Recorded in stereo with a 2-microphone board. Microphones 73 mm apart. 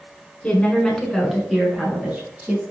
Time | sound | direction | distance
0.4 | a woman speaking | 20° left (ahead or behind) | 1.2 m